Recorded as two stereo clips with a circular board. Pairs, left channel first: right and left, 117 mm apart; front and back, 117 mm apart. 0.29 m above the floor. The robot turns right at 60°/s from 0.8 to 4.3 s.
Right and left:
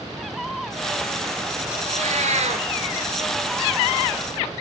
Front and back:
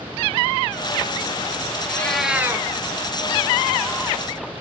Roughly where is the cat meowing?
Left.